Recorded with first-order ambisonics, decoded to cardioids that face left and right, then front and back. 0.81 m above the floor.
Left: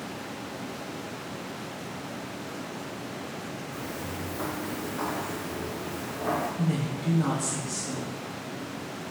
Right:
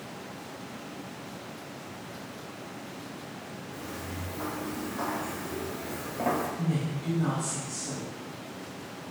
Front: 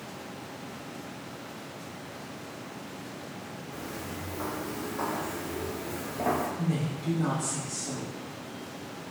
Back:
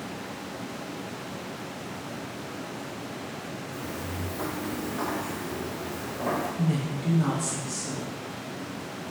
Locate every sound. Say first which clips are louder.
3.7 s footsteps: left 1 dB, back 1 dB; 135° left, 1.5 m; by 6.5 s 55° right, 1.3 m
6.6 s a woman speaking: left 2 dB, back 2 dB; 140° left, 0.6 m